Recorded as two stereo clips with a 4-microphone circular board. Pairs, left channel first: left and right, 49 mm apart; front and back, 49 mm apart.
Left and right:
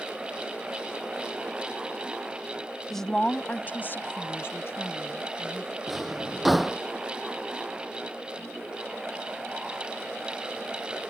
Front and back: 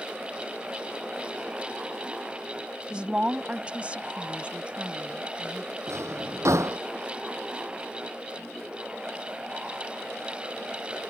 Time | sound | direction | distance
2.9 | a woman speaking | 170° left | ?
5.9 | a drawer | 175° right | ?